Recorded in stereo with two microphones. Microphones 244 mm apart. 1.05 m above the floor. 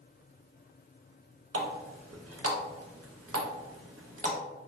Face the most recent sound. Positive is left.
turn(degrees=-75)  # may be behind; listen again after turning